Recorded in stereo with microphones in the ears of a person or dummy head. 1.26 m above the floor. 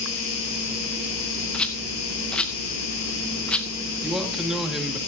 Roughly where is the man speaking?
Centre.